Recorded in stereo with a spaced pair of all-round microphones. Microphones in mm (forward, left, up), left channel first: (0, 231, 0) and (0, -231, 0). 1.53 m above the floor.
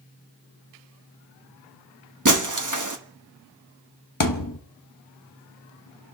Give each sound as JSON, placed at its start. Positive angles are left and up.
{"t": 2.2, "sound": "breaking glass", "side_deg": -40, "distance_m": 1.3}
{"t": 4.2, "sound": "a thud", "side_deg": 45, "distance_m": 1.1}